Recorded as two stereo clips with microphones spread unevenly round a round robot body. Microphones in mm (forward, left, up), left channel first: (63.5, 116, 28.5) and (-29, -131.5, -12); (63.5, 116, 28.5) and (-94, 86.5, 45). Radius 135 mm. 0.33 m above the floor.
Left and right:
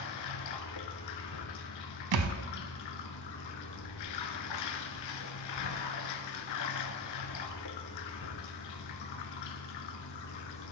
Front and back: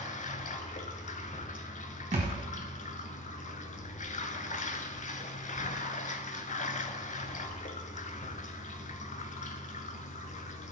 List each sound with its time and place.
0.0 s running water: 55° left, 0.7 m
2.1 s a thud: 105° right, 0.8 m